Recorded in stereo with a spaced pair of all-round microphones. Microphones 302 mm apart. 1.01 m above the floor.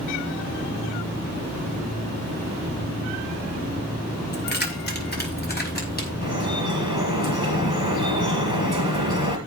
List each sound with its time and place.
4.3 s keys jangling: 35° left (ahead or behind), 3 m; by 6.1 s 30° left (ahead or behind), 5.5 m
6.2 s dripping: 80° left, 5.5 m